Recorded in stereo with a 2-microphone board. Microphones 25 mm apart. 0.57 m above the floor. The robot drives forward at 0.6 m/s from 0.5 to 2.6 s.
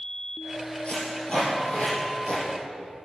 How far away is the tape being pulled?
About 4.5 m.